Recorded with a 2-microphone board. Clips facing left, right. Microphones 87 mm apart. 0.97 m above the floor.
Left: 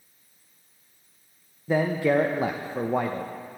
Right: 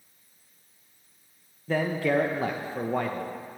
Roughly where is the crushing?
No crushing in this recording.